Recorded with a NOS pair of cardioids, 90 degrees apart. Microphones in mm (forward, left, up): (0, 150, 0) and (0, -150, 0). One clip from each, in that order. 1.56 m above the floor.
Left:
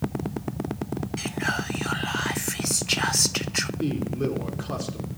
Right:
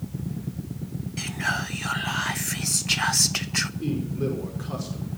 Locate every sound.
1.2 s whispering: straight ahead, 0.6 m
3.8 s a man speaking: 30° left, 4.5 m